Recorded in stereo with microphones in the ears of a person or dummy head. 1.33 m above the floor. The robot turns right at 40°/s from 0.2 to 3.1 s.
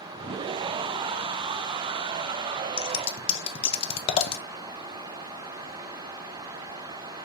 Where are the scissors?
25° left (ahead or behind), 0.5 m; by 4.4 s 30° left (ahead or behind), 0.5 m.